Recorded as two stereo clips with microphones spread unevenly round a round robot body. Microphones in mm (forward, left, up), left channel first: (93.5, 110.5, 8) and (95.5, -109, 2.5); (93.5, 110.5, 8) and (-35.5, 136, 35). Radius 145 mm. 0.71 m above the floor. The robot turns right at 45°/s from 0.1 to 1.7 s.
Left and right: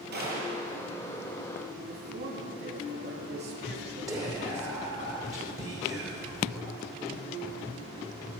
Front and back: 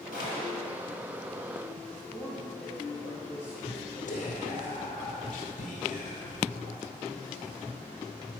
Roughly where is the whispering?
Ahead.